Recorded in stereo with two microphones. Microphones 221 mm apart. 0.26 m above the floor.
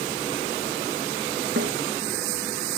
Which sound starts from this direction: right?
A snare drum, at 1.6 s.